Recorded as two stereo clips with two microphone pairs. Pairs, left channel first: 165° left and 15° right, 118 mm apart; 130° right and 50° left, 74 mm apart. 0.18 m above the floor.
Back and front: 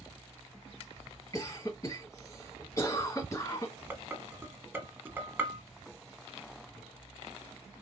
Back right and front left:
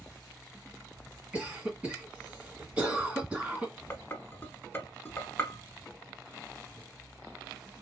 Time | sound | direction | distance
1.3 | a cough | 120° left | 2 m
3.9 | dishes clattering | 80° right | 0.8 m